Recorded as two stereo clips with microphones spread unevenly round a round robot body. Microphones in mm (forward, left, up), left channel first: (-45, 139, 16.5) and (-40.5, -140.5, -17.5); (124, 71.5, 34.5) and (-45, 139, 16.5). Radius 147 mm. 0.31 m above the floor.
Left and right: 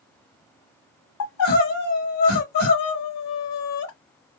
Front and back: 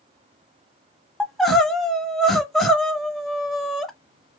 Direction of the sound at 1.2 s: 75° left.